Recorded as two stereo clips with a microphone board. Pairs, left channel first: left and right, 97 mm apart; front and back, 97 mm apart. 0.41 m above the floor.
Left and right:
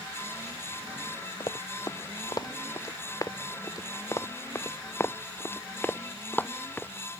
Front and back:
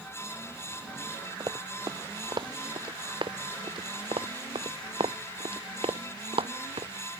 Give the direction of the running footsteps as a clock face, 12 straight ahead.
7 o'clock.